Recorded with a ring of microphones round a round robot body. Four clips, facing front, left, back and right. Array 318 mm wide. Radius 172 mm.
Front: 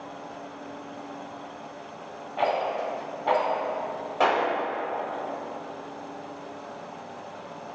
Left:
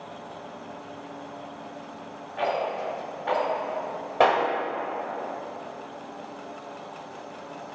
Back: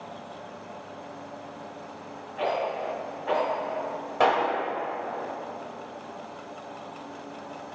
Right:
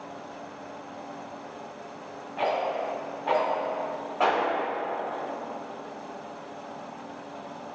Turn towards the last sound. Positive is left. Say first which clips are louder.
# left 4 dB, back 1 dB
turn(degrees=95)